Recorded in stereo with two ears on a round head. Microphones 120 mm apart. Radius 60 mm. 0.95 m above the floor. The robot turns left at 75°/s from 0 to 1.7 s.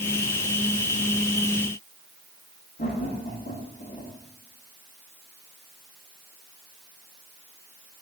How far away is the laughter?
About 2.5 m.